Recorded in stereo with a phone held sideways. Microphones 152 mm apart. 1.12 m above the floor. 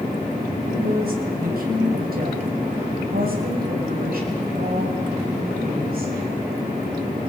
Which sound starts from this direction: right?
A woman speaking, at 0.7 s.